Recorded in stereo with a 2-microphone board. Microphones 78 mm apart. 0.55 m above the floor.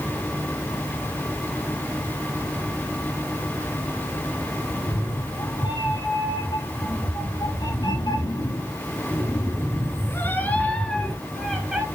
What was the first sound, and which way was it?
A cat meowing, 85° left.